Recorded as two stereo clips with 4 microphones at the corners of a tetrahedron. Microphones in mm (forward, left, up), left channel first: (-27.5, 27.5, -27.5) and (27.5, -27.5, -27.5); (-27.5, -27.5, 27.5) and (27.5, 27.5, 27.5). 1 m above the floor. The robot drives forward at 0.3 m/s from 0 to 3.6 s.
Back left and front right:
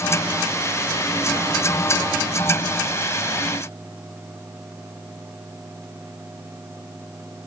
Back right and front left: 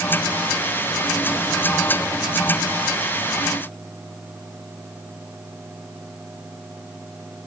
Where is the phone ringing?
I don't hear a phone ringing.